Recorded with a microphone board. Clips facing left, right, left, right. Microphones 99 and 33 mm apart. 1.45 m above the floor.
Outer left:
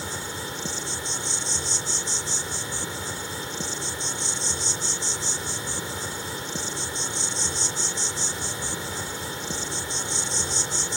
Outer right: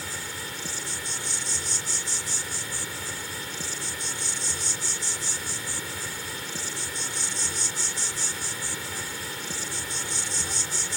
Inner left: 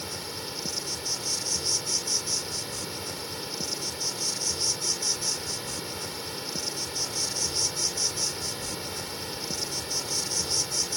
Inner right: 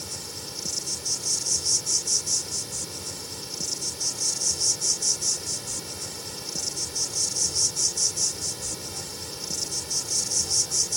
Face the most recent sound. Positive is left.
turn(degrees=25)  # may be behind; listen again after turning